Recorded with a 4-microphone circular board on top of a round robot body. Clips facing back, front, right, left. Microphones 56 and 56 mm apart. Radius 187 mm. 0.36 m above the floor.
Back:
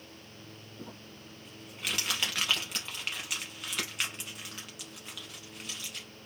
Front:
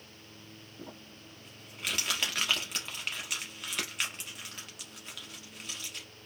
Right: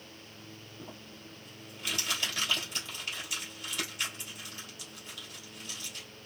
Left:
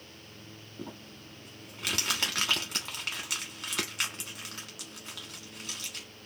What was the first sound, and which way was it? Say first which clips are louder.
Crumpling: even, left 5 dB; 90° left.